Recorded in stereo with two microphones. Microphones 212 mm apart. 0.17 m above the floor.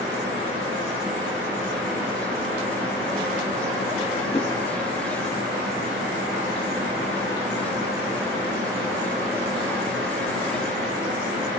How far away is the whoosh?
About 1.1 m.